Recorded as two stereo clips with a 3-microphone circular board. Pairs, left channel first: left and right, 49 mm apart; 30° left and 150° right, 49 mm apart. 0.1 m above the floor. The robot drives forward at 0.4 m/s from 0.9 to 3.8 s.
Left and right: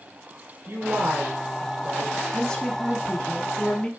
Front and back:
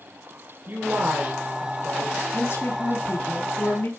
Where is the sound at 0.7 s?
120° right, 2 m; by 2.2 s 130° right, 2.5 m.